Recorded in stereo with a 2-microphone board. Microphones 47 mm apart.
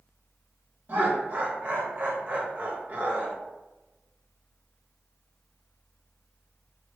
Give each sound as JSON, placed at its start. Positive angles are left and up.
{"t": 0.9, "sound": "laughter", "side_deg": -45, "distance_m": 1.3}